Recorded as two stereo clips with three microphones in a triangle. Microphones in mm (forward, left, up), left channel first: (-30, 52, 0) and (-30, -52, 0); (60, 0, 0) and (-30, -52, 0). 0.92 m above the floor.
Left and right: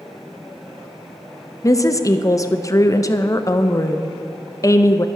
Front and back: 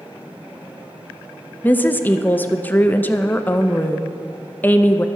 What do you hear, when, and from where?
1.6 s a woman speaking: 85° left, 0.7 m